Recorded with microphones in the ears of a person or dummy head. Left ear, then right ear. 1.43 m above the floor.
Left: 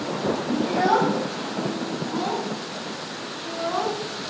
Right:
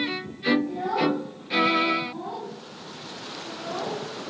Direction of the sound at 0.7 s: 75° left (ahead or behind).